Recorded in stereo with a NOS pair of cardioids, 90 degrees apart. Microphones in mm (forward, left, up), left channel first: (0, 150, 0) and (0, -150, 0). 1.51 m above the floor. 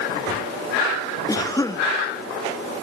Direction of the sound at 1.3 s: 10° left.